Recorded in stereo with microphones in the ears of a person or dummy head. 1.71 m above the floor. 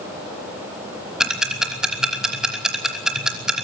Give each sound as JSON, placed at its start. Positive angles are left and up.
{"t": 1.2, "sound": "ticking", "side_deg": 0, "distance_m": 3.0}